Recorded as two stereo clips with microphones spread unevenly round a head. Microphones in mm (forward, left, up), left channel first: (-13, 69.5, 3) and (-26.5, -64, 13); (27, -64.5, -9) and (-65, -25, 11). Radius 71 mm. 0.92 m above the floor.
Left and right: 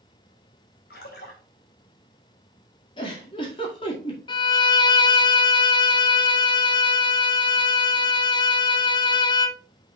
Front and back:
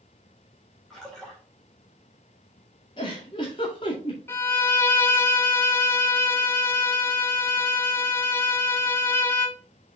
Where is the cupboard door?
No cupboard door in this recording.